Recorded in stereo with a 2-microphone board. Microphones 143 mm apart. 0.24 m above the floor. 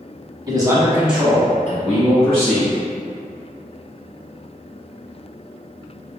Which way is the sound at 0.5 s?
30° right (ahead or behind).